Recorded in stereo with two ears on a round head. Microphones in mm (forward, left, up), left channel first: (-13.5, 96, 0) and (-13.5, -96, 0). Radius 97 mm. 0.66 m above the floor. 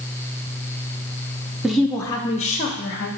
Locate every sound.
1.6 s a woman speaking: 5° right (ahead or behind), 0.6 m; by 3.1 s 45° left (ahead or behind), 0.8 m